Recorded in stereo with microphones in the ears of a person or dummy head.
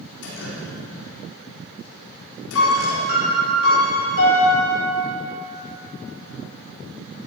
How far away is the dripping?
About 4.5 m.